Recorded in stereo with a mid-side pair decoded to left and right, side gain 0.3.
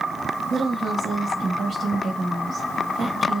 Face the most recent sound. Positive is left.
turn(degrees=-60)